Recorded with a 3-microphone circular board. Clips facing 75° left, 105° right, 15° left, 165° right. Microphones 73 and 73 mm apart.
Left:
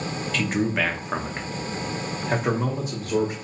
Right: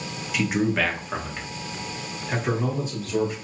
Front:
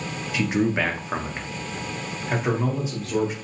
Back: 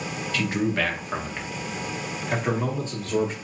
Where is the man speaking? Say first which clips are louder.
Right 2 dB, front 3 dB; 40° right, 0.7 m; by 3.3 s 95° left, 1.5 m.